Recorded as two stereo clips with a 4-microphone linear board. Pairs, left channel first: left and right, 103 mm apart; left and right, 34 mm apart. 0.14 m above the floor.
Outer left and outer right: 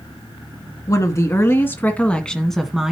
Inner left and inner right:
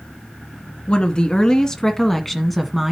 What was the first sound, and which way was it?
A woman speaking, 30° left (ahead or behind).